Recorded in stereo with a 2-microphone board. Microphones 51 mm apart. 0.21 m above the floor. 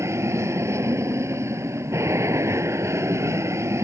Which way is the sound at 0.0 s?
70° right (ahead or behind).